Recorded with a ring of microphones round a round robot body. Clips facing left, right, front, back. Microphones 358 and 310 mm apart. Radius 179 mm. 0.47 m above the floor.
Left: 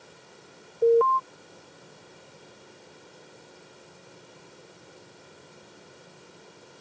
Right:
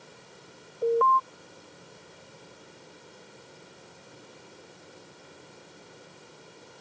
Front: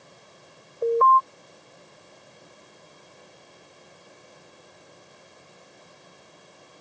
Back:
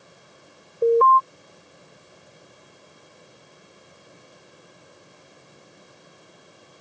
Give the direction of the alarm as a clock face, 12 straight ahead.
8 o'clock.